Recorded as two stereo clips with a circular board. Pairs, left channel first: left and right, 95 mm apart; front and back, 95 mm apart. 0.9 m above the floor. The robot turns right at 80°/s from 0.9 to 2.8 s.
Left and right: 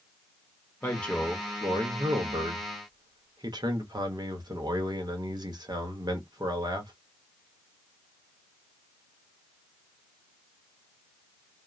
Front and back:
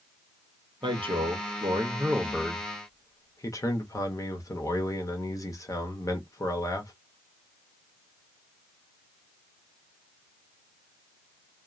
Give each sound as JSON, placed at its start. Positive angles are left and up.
{"t": 0.8, "sound": "a man speaking", "azimuth_deg": 155, "distance_m": 0.8}